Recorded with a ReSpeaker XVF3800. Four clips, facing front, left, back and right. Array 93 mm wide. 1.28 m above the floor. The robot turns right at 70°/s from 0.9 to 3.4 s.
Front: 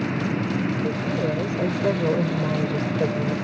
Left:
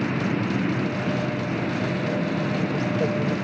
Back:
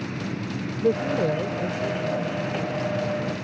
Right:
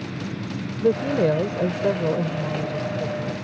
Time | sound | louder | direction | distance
0.8 | a woman speaking | right 6 dB, back 2 dB | 120° right | ?